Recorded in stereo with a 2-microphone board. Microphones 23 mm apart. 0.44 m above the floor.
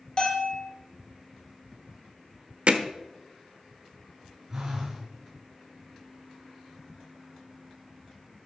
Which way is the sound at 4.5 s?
20° right (ahead or behind).